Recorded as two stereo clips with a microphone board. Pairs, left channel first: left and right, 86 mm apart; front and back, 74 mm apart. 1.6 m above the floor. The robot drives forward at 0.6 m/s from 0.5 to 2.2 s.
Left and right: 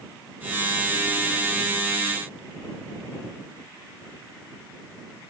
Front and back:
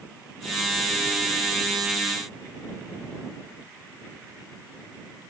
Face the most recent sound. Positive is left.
No sound to turn to.